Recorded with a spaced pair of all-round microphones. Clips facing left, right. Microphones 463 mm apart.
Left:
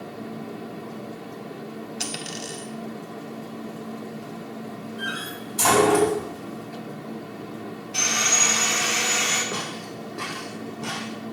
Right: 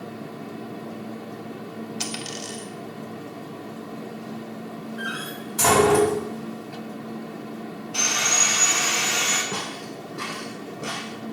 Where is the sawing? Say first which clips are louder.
Even; 40° left (ahead or behind), 7 m.